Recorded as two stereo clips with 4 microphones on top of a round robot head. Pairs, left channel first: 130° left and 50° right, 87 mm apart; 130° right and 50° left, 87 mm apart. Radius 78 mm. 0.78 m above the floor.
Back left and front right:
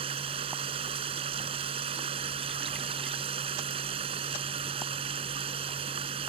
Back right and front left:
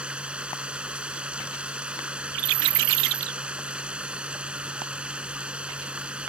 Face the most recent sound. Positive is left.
turn(degrees=-30)